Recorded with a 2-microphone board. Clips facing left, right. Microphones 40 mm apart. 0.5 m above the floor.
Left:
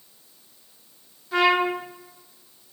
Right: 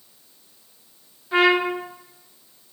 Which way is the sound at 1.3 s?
20° right (ahead or behind).